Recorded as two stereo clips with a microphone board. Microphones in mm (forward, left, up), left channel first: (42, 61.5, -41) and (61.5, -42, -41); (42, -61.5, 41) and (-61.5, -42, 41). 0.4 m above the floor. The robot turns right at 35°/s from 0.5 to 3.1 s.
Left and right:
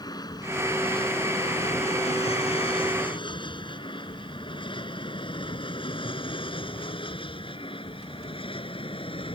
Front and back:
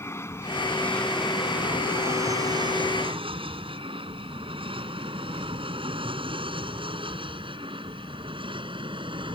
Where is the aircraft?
55° left; by 9.4 s 130° left.